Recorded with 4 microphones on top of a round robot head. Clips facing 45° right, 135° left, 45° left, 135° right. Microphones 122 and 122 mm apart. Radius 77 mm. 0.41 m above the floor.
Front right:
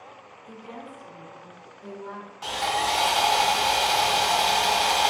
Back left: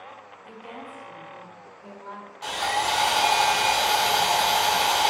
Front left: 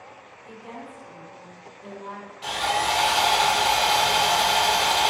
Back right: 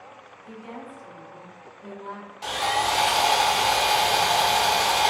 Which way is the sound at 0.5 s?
150° left.